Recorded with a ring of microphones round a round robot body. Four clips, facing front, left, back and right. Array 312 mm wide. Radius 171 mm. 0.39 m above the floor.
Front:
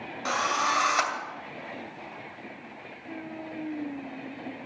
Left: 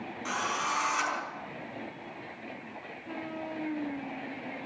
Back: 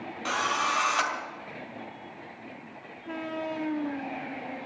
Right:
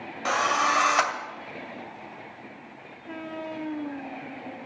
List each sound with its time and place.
0.2 s a drill: 80° right, 2 m